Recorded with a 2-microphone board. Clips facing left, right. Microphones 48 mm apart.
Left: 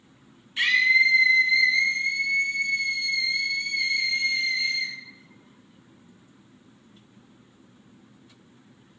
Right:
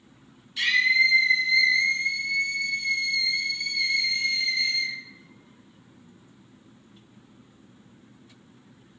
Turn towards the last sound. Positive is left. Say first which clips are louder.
# left 1 dB
turn(degrees=30)  # may be behind; listen again after turning